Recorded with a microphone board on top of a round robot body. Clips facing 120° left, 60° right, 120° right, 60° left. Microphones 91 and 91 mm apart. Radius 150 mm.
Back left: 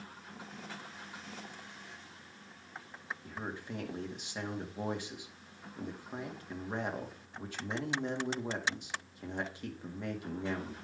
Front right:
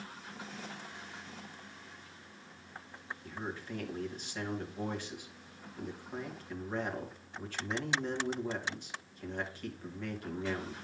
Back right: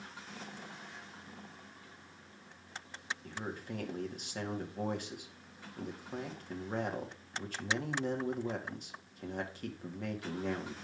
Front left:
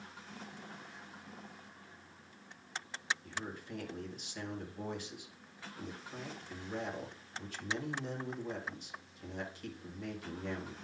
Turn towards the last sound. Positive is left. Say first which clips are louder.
# front right 2 dB, back right 2 dB
turn(degrees=-165)